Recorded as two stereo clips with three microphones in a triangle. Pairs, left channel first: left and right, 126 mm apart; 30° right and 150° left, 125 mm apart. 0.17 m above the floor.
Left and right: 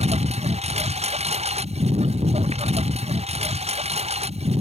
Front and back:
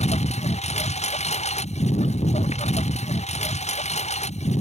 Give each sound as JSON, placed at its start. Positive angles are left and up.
{"t": 0.0, "sound": "a lawn mower", "azimuth_deg": -60}